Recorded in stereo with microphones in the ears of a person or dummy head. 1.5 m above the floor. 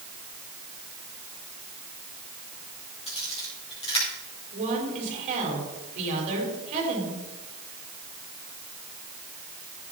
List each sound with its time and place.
3.1 s a camera shutter: 30° left (ahead or behind), 4.5 m
4.5 s a woman speaking: 40° right (ahead or behind), 4 m